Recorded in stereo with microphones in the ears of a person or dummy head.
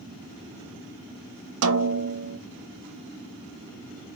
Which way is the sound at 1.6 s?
70° right (ahead or behind).